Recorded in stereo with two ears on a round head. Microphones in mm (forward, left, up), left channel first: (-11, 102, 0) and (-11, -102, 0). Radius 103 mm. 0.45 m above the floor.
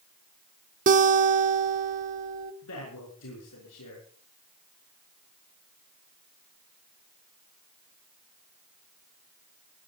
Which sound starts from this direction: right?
A guitar, at 0.9 s.